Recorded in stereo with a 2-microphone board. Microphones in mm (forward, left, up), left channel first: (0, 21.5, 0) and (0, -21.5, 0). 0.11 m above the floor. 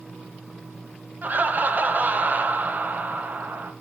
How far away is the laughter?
About 1.8 m.